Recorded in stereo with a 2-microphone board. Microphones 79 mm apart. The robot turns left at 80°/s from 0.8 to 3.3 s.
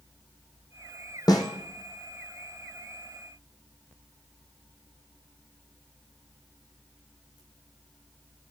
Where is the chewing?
I don't hear chewing.